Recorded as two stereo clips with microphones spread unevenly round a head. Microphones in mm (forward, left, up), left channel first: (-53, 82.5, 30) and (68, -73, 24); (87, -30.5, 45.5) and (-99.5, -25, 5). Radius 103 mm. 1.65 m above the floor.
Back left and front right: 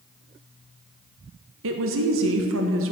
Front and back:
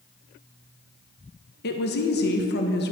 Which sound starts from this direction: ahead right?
A woman speaking, at 1.6 s.